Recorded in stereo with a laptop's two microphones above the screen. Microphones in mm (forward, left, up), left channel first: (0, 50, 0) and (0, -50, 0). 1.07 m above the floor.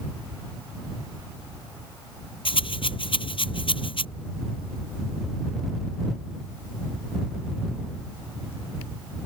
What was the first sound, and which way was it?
A rattle, 60° left (ahead or behind).